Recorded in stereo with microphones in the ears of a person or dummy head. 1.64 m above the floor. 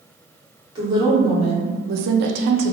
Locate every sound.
0.8 s a woman speaking: 30° right (ahead or behind), 1.0 m; by 2.7 s 45° right (ahead or behind), 0.6 m